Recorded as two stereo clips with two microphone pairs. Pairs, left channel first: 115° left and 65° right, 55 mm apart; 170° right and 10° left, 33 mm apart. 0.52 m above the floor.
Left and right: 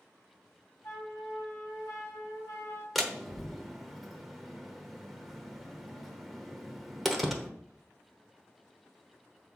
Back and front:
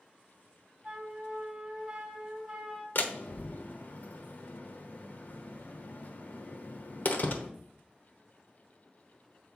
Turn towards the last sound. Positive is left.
turn(degrees=-160)